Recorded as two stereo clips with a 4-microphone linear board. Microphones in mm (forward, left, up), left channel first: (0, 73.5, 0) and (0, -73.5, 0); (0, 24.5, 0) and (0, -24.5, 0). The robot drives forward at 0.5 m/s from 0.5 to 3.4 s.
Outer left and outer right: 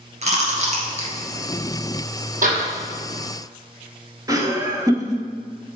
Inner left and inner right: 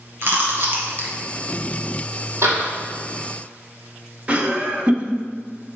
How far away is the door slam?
About 2.5 m.